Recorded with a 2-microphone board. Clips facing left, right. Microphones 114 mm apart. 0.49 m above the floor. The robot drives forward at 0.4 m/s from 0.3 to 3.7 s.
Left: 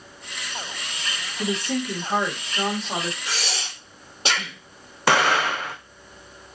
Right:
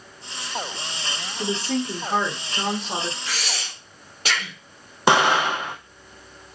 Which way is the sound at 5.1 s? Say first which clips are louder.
Right 2 dB; 20° right (ahead or behind).